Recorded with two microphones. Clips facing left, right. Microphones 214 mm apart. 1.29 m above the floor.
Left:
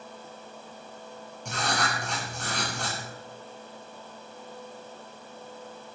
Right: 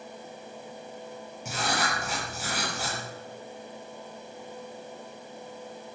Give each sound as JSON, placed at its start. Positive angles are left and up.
{"t": 1.4, "sound": "writing", "side_deg": -5, "distance_m": 7.5}